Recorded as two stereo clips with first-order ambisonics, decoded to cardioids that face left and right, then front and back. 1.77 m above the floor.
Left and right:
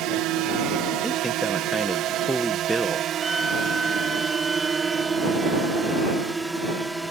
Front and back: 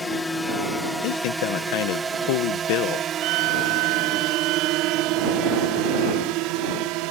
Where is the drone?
75° right; by 7.1 s 175° right.